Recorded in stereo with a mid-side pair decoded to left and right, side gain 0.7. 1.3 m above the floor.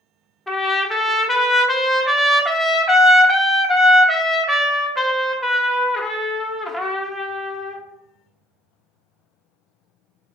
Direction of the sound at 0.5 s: Straight ahead.